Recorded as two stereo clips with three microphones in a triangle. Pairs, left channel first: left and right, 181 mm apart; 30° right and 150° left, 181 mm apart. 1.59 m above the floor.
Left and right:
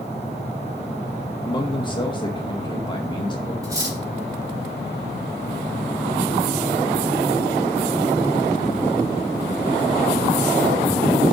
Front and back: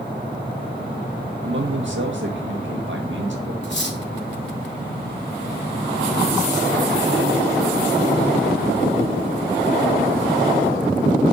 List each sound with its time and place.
1.4 s a man speaking: 155° left, 1.9 m
3.6 s cutlery clinking: 20° right, 2.5 m